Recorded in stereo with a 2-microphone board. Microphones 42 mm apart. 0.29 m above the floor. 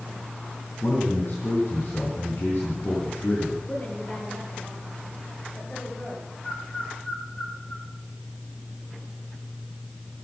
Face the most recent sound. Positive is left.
turn(degrees=30)  # may be behind; listen again after turning